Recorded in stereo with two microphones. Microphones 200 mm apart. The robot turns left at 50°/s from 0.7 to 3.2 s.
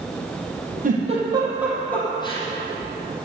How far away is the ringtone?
I don't hear a ringtone.